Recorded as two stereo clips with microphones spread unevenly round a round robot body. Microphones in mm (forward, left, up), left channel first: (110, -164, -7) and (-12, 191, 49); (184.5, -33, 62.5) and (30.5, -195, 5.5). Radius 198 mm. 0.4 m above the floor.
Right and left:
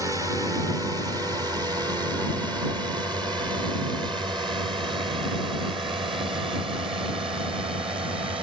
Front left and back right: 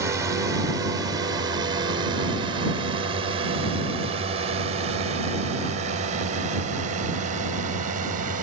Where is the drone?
160° right; by 8.4 s 170° right.